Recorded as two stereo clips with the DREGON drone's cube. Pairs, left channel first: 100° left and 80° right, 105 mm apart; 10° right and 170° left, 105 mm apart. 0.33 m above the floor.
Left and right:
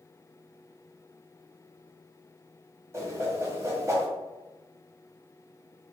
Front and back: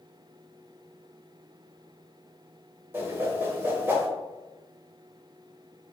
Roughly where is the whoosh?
Behind right.